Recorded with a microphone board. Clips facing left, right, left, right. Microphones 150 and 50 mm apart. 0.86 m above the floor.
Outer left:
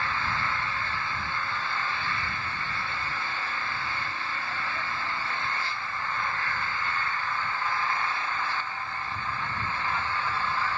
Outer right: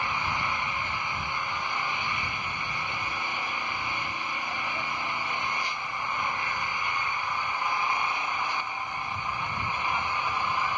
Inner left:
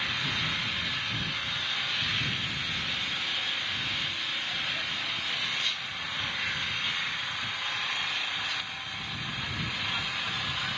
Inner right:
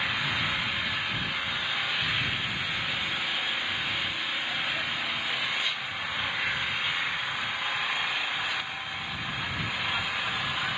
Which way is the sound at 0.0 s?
15° right (ahead or behind).